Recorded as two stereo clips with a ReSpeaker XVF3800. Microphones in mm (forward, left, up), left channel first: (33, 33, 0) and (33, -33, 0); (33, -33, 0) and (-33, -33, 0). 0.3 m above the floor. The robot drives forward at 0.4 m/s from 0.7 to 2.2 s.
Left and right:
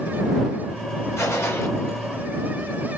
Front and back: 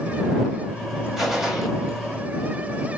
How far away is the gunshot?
About 1.1 m.